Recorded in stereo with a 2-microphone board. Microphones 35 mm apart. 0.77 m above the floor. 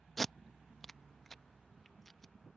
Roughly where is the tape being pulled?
Centre.